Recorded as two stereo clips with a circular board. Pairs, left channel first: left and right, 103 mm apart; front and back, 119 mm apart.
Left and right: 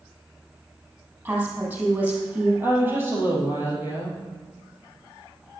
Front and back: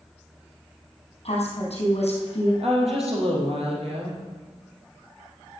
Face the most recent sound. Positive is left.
turn(degrees=-155)